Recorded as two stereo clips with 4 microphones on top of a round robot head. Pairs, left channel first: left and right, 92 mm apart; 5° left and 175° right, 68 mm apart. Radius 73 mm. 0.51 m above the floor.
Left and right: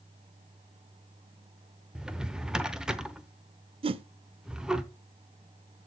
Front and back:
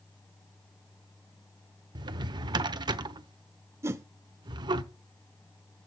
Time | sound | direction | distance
1.9 | a drawer | 175° right | 0.7 m
3.8 | a whoosh | 120° right | 0.6 m